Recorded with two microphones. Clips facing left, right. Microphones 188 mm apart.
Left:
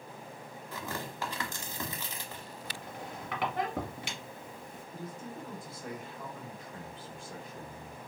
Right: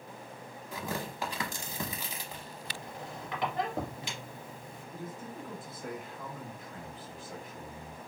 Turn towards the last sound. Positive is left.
turn(degrees=-5)  # may be behind; listen again after turning